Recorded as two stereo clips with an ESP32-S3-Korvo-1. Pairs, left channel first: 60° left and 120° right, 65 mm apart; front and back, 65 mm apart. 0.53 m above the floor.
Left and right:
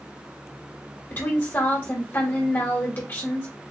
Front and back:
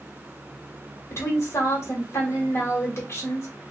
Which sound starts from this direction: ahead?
A woman speaking, at 1.1 s.